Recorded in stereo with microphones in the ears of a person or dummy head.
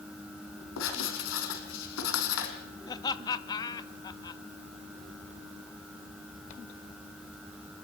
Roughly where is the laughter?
Centre.